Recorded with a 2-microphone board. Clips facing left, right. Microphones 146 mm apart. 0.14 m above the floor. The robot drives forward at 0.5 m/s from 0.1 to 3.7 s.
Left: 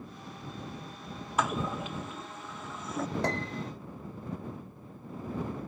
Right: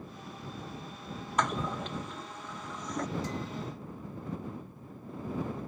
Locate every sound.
1.4 s a toilet flushing: 5° left (ahead or behind)
3.2 s a piano: 70° left (ahead or behind); by 3.7 s 75° left (ahead or behind)